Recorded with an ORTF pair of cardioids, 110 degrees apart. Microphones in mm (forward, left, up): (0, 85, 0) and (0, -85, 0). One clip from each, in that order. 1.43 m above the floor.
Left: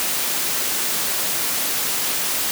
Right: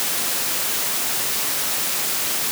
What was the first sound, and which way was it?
Only background noise.